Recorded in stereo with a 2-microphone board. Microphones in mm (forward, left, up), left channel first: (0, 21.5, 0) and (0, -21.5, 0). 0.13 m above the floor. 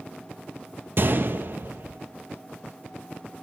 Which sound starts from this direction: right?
A gunshot, at 1.0 s.